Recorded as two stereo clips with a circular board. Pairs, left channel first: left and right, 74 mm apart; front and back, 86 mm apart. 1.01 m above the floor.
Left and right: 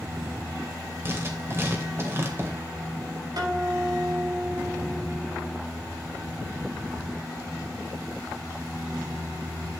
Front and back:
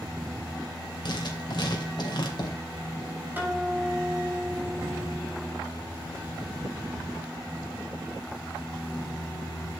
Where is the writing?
35° right, 2.5 m.